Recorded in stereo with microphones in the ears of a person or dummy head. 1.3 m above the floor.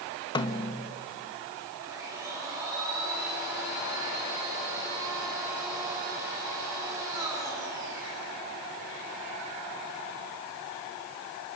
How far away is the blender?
About 7 m.